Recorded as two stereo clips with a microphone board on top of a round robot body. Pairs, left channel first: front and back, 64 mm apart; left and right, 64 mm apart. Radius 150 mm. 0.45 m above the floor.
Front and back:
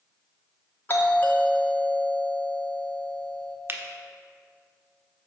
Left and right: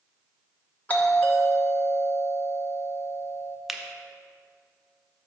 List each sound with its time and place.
0.9 s a doorbell: 35° left, 1.4 m
3.7 s a finger snap: straight behind, 1.0 m